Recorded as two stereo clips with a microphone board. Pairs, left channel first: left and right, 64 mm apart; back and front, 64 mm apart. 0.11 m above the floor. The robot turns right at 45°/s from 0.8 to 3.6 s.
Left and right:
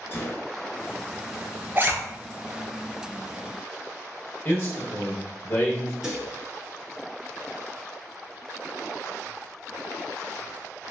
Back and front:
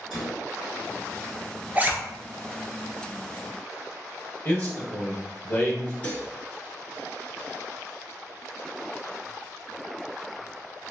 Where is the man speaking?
120° left, 1.7 m.